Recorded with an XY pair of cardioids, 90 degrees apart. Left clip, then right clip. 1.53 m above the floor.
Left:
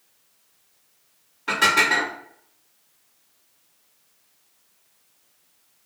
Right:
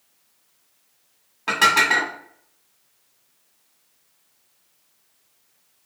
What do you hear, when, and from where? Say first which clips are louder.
1.5 s dishes clattering: right 2 dB; 65° right, 1.6 m